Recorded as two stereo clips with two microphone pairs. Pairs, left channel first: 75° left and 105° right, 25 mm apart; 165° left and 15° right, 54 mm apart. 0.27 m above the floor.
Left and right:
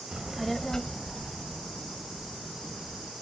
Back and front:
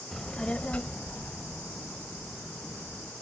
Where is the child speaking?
115° right; by 3.1 s 100° left.